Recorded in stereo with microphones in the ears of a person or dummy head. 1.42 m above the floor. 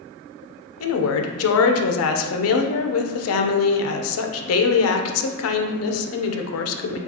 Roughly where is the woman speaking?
Left.